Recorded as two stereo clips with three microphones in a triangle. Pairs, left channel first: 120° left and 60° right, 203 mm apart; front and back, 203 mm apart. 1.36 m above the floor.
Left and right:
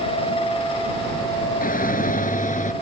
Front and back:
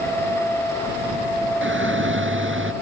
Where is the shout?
165° left; by 2.7 s 170° left.